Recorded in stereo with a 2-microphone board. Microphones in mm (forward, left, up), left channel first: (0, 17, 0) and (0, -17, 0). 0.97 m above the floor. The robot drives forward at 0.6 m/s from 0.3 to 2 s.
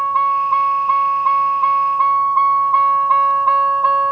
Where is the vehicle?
5° left (ahead or behind); by 4.1 s 35° right (ahead or behind).